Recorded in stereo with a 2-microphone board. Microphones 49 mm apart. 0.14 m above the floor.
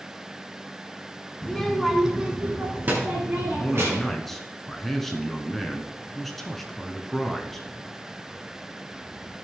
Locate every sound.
1.4 s a child speaking: 15° left (ahead or behind), 1.2 m; by 4.2 s 60° right (ahead or behind), 2 m
3.6 s a man speaking: 5° left (ahead or behind), 1.3 m